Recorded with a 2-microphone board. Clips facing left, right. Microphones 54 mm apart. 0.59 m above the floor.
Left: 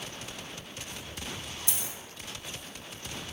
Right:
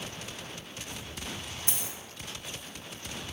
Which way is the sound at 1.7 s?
40° right (ahead or behind).